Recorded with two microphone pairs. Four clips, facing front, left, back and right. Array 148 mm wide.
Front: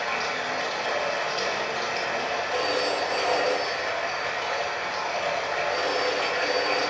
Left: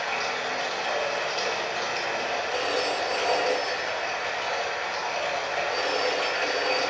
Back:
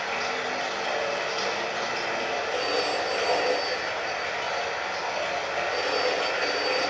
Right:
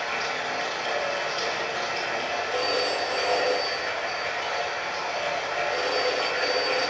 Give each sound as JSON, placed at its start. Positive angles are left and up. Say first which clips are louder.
{"t": 0.0, "sound": "running water", "louder": "even, front 1 dB", "azimuth_deg": 5, "distance_m": 1.9}
{"t": 2.5, "sound": "a phone ringing", "louder": "right 2 dB, front 2 dB", "azimuth_deg": -5, "distance_m": 1.8}